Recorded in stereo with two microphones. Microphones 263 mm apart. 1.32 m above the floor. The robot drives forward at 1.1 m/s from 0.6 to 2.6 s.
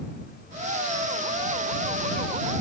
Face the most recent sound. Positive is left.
No sound to turn to.